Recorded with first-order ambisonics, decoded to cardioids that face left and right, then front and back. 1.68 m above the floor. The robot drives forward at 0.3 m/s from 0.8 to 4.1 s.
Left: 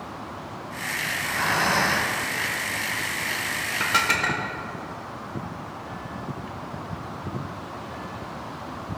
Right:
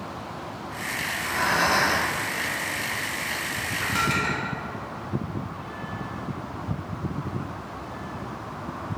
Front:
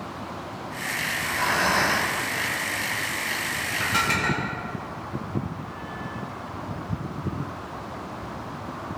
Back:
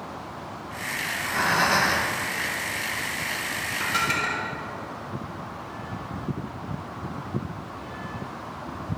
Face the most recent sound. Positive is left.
turn(degrees=95)